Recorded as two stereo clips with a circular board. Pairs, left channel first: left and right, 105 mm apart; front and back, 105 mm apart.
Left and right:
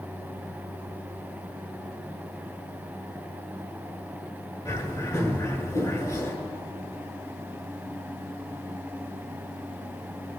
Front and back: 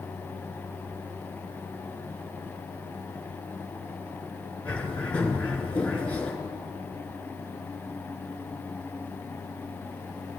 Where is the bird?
65° left, 1.0 m.